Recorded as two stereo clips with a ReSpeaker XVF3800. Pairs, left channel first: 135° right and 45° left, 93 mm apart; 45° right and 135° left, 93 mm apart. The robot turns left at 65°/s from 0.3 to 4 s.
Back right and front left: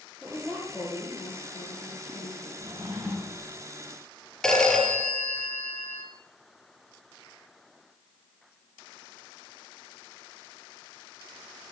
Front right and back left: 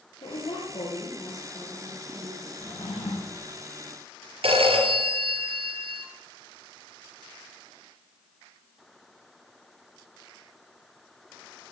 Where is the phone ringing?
140° left, 3 m.